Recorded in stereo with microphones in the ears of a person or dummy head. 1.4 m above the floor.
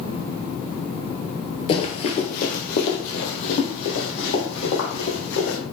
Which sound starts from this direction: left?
Running footsteps, at 1.7 s.